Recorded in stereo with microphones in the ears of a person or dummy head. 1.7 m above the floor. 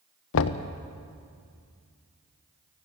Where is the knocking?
70° left (ahead or behind), 0.8 m.